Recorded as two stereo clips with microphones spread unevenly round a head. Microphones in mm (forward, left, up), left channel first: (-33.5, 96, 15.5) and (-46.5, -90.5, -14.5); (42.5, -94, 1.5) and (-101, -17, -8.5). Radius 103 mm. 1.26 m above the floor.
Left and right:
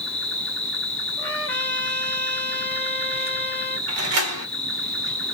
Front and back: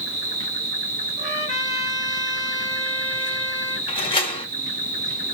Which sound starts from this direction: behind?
An insect, at 0.0 s.